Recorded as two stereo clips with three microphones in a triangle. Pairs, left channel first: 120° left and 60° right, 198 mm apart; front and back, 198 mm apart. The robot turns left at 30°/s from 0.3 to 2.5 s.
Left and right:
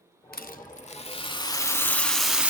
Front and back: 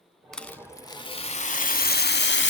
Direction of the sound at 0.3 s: 90° left.